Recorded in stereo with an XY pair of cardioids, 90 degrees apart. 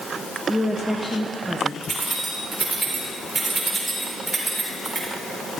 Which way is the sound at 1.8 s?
35° right.